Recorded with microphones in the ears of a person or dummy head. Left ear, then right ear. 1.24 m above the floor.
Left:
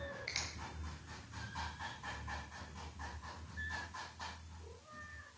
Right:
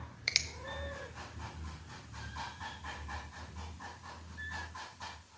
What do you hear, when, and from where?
0.3 s a finger snap: 30° right (ahead or behind), 1.0 m